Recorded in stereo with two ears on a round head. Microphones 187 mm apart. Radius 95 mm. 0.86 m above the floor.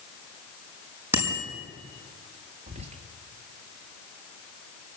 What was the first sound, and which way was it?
A bicycle bell, 10° right (ahead or behind).